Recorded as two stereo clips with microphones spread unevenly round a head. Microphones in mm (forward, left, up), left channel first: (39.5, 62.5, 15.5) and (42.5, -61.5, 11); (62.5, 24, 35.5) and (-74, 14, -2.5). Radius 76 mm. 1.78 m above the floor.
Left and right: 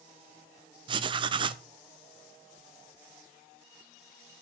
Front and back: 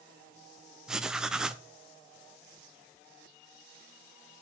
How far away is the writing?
About 0.5 m.